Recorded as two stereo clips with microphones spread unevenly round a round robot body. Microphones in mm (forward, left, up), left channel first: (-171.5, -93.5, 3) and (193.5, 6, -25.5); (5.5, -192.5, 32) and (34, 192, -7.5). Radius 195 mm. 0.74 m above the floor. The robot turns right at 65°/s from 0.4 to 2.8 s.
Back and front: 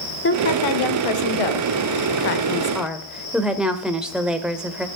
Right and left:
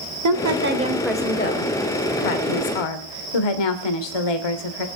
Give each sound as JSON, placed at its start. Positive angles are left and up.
{"t": 0.2, "sound": "a woman speaking", "azimuth_deg": 130, "distance_m": 2.5}